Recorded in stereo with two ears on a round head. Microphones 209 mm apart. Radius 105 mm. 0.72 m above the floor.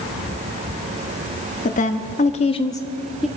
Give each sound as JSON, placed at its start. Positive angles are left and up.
{"t": 1.6, "sound": "a woman speaking", "side_deg": 35, "distance_m": 1.0}